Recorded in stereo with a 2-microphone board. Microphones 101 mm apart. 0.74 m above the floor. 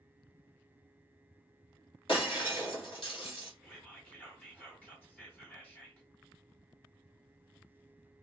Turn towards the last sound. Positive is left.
turn(degrees=15)  # may be behind; listen again after turning